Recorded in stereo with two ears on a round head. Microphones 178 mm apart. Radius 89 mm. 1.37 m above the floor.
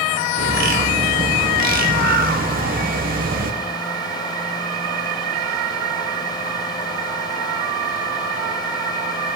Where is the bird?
45° right (ahead or behind), 0.9 m.